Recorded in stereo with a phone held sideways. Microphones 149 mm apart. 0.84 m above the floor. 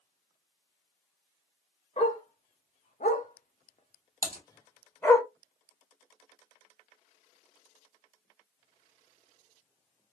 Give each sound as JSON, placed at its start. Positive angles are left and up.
{"t": 2.0, "sound": "a dog barking", "side_deg": 50, "distance_m": 1.2}
{"t": 4.2, "sound": "typing on a keyboard", "side_deg": -65, "distance_m": 1.0}